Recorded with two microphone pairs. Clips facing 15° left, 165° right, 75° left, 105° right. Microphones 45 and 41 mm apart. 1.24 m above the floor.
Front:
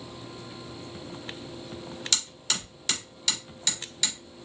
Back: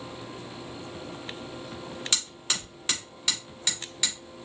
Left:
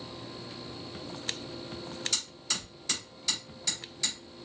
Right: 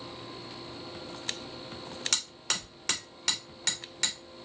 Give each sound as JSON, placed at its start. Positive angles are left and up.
{"t": 2.1, "sound": "hammering", "azimuth_deg": -100, "distance_m": 3.0}